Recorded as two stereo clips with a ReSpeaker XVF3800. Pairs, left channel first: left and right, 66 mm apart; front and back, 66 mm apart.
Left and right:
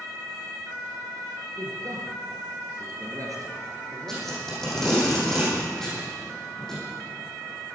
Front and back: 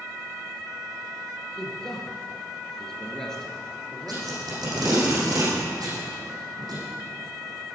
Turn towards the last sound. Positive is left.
turn(degrees=175)